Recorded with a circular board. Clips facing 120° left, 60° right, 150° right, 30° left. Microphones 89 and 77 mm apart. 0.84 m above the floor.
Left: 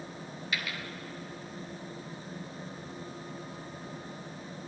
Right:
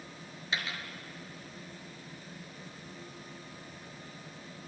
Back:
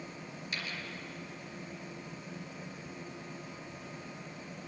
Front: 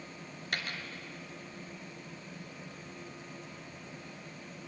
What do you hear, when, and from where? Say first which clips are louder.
0.5 s a dropped coin: even, front 3 dB; straight ahead, 2 m